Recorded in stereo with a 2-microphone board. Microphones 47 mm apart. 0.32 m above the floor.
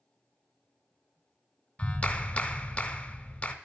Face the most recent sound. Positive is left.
turn(degrees=25)  # may be behind; listen again after turning